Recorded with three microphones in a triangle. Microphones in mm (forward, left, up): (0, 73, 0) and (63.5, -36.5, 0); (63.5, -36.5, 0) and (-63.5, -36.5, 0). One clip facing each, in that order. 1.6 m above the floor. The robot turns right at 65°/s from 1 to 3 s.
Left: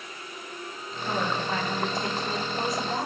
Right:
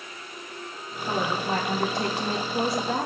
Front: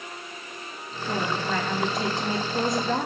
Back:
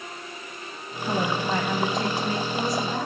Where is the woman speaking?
145° right, 1.1 m; by 3.1 s 15° right, 1.1 m.